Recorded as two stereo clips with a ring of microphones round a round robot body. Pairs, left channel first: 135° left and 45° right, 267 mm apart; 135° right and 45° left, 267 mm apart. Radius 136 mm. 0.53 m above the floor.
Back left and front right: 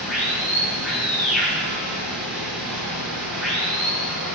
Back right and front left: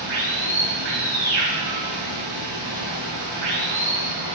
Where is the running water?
45° left, 4.5 m.